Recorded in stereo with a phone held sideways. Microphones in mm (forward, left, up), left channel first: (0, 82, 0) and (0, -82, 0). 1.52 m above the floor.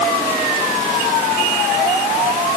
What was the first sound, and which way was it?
Only background noise.